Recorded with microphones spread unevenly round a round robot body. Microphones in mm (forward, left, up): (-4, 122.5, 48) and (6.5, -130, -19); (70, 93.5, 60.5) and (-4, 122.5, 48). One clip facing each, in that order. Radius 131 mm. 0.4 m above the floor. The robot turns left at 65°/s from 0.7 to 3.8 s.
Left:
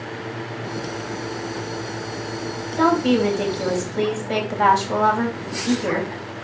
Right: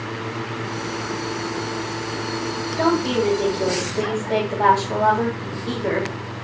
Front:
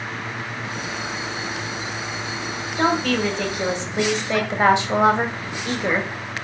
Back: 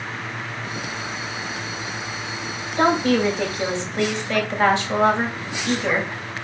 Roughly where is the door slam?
I don't hear a door slam.